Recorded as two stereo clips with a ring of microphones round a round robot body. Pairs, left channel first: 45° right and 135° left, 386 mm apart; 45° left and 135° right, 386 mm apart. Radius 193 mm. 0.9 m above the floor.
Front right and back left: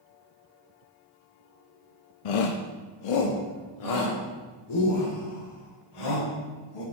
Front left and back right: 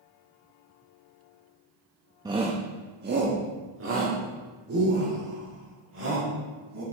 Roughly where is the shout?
Ahead right.